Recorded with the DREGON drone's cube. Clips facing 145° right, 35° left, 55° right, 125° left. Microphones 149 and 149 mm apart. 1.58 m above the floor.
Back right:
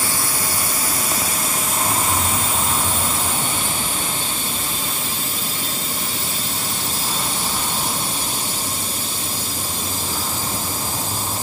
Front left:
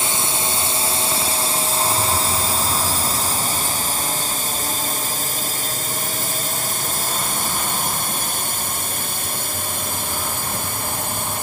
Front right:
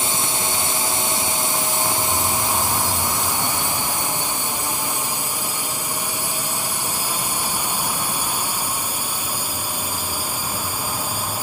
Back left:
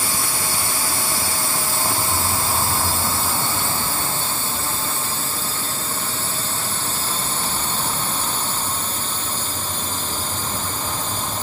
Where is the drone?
10° right; by 11.4 s 25° left.